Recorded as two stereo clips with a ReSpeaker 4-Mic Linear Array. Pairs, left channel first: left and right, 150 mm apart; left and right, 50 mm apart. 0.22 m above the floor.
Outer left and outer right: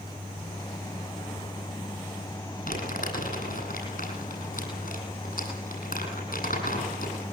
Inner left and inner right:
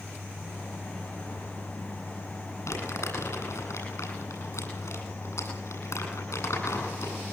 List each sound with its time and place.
2.7 s crumpling: 70° left (ahead or behind), 9 m